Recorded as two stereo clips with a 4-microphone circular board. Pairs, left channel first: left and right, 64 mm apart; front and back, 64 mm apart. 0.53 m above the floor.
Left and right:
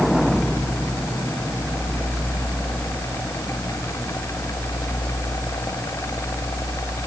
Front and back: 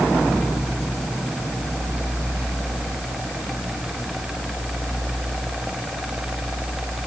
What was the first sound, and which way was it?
Only background noise.